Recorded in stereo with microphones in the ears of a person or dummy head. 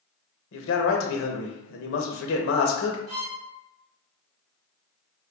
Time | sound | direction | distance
0.5 | a man speaking | 65° left (ahead or behind) | 0.7 m
3.1 | a violin | 65° right (ahead or behind) | 1.2 m